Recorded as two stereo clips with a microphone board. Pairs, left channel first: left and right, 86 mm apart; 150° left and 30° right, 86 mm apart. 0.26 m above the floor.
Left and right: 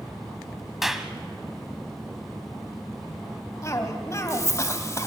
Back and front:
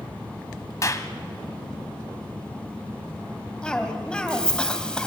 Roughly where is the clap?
Behind.